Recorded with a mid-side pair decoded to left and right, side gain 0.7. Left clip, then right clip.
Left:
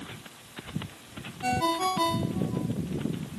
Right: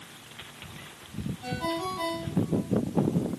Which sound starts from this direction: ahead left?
A ringtone, at 1.4 s.